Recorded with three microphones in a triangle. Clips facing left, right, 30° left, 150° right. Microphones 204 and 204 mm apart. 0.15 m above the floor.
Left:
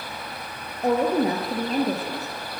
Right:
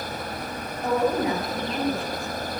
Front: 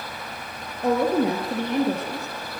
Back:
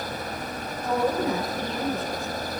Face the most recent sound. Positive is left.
turn(degrees=45)